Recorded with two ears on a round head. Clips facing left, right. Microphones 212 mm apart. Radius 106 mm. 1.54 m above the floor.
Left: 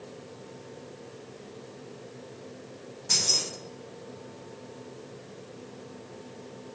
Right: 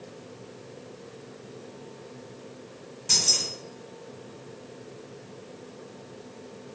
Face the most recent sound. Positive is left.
turn(degrees=-40)  # may be behind; listen again after turning